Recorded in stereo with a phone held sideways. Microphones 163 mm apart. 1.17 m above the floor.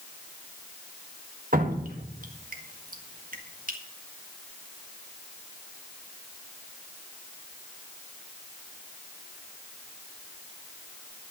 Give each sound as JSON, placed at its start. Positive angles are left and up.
{"t": 1.5, "sound": "dripping", "side_deg": -65, "distance_m": 1.6}